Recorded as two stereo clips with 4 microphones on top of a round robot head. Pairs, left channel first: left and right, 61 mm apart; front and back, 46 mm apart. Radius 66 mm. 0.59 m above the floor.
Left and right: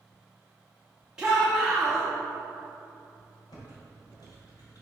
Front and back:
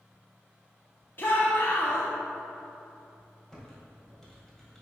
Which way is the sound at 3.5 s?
80° left.